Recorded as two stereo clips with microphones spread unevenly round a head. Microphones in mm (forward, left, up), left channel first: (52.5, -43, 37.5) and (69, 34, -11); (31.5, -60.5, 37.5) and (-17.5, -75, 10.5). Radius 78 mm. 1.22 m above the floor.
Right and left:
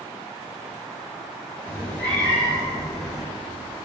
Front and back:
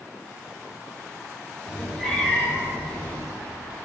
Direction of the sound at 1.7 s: 50° right.